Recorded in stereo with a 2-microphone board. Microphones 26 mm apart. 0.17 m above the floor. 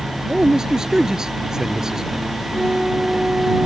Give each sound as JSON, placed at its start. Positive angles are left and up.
{"t": 0.3, "sound": "a man speaking", "side_deg": -25}
{"t": 2.5, "sound": "a flute", "side_deg": -45}